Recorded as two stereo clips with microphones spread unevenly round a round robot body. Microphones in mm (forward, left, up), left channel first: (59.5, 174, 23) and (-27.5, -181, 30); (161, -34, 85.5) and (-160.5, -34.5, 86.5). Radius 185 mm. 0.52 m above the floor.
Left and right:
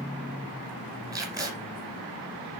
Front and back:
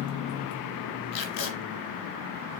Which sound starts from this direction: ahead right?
Tape being pulled, at 1.1 s.